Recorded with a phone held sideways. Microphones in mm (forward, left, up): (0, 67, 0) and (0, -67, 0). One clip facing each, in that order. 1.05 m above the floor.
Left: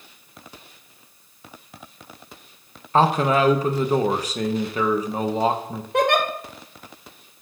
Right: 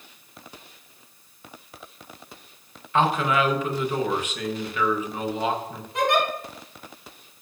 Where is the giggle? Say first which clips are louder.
Left 3 dB; 65° left (ahead or behind), 1.2 m.